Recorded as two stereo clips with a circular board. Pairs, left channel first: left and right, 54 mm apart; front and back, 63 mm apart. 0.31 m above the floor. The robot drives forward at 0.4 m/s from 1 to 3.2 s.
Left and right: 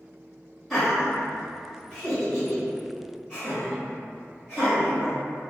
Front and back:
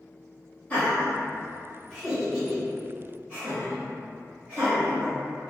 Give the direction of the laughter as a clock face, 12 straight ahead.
12 o'clock.